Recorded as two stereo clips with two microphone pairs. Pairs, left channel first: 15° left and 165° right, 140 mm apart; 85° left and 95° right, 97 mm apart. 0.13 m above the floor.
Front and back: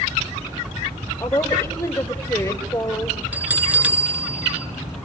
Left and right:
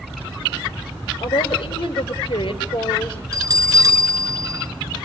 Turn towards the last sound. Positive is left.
turn(degrees=-95)